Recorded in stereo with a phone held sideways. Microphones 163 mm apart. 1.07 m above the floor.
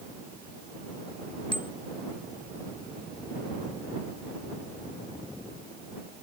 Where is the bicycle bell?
30° left (ahead or behind).